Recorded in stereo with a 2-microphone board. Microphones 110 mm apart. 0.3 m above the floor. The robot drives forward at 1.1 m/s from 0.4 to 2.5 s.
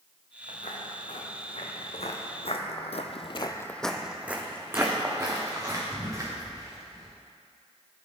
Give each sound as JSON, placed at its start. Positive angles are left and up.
{"t": 0.5, "sound": "footsteps", "side_deg": 80, "distance_m": 2.0}